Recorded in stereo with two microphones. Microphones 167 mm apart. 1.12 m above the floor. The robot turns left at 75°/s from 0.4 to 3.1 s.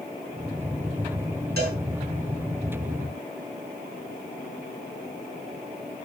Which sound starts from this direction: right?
A cowbell, at 1.6 s.